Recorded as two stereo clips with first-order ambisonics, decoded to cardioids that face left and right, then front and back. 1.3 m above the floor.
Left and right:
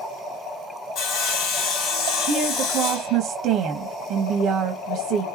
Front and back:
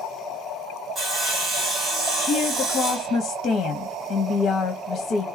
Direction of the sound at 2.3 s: 55° right.